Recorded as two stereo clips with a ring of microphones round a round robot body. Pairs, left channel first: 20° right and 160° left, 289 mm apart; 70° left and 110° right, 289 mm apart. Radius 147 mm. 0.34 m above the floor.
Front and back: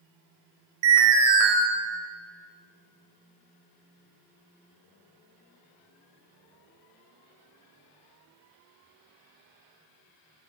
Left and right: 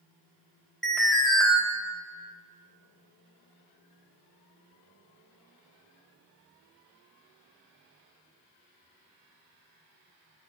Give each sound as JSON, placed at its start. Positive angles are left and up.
{"t": 0.8, "sound": "an alarm", "azimuth_deg": 155, "distance_m": 2.5}